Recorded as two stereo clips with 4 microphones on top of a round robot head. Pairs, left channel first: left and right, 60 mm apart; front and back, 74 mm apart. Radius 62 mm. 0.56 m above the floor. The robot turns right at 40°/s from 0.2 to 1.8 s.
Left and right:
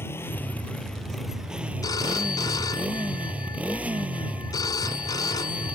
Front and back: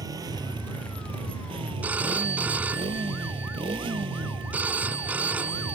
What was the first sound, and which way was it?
A motorcycle, 140° left.